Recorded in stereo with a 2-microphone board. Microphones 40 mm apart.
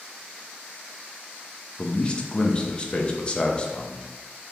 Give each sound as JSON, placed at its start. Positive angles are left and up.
{"t": 1.8, "sound": "a man speaking", "side_deg": 25, "distance_m": 0.5}